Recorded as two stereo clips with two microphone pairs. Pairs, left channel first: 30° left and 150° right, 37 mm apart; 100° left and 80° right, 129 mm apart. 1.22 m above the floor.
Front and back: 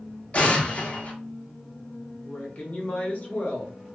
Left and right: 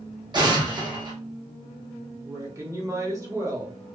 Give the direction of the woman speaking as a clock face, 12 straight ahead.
12 o'clock.